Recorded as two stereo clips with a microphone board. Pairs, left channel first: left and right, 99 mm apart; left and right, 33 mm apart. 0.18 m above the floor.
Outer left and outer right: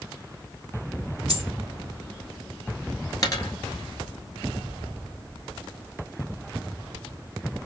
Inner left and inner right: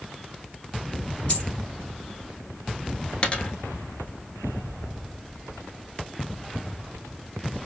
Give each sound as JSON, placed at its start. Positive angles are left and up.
{"t": 1.3, "sound": "a dropped coin", "side_deg": 40, "distance_m": 1.8}
{"t": 3.2, "sound": "a dropped coin", "side_deg": 40, "distance_m": 1.2}